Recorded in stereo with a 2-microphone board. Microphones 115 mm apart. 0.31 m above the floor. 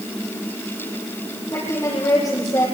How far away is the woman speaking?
About 6.5 m.